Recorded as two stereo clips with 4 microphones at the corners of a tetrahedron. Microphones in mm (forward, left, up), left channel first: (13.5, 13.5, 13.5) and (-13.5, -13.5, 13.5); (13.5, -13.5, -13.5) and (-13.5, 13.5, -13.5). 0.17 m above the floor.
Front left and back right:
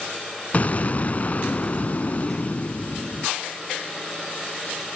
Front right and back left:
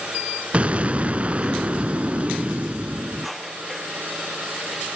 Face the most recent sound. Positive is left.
turn(degrees=90)